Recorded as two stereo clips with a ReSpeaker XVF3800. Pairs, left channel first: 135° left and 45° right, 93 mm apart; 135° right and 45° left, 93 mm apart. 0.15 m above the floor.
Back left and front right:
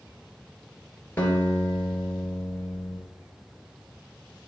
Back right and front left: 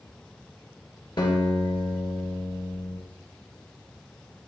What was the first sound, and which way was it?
A guitar, 160° right.